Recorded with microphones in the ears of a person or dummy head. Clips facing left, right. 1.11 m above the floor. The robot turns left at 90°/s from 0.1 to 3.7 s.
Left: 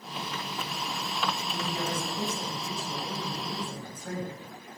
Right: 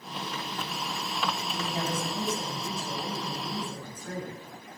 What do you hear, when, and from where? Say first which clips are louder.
1.5 s a woman speaking: right 1 dB; 10° right, 6.5 m; by 4.3 s 150° left, 6.5 m